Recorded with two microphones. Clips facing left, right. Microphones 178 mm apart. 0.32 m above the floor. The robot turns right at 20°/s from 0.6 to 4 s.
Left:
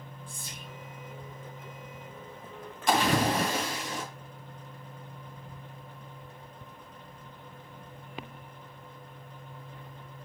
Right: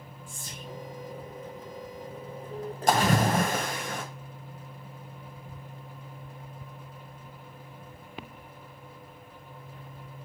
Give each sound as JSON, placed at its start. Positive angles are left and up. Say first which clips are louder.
{"t": 0.3, "sound": "whispering", "louder": "right 2 dB", "side_deg": -45, "distance_m": 2.5}
{"t": 2.9, "sound": "a splash", "louder": "right 1 dB", "side_deg": -45, "distance_m": 2.5}